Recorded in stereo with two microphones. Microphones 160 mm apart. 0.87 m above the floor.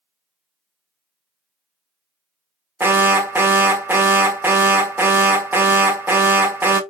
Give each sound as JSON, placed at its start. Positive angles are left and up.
{"t": 2.8, "sound": "an alarm", "side_deg": -10, "distance_m": 0.6}